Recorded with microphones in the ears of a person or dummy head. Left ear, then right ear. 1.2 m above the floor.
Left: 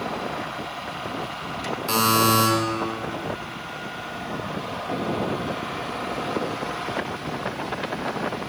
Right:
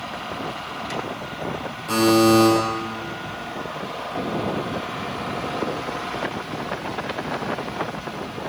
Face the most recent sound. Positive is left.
turn(degrees=30)  # may be behind; listen again after turning